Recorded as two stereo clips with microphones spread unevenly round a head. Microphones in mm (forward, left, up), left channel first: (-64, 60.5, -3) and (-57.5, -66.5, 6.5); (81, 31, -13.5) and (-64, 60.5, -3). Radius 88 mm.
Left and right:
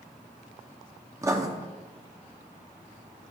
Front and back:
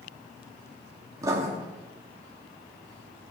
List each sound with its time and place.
1.2 s writing: 135° right, 0.9 m